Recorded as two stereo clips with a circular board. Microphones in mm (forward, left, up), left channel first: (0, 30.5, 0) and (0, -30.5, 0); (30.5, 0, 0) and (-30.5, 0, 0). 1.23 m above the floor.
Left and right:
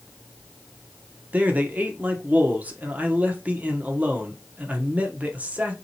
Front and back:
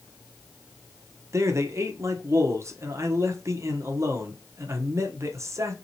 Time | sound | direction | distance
1.3 | a man speaking | 150° right | 1.0 m